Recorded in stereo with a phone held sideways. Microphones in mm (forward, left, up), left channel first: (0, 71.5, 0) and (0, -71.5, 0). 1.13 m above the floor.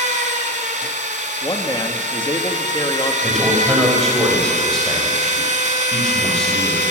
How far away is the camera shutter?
No camera shutter in this recording.